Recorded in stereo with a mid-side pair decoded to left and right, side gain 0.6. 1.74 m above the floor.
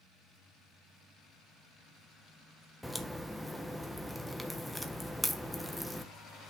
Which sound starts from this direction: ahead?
A crack, at 2.8 s.